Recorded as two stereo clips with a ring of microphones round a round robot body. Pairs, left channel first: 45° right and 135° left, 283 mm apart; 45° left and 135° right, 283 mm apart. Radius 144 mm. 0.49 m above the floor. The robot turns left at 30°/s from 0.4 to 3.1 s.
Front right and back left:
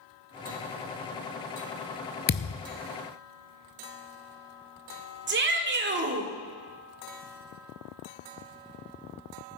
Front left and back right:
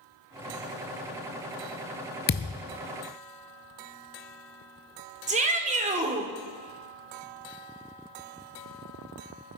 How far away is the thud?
About 0.7 m.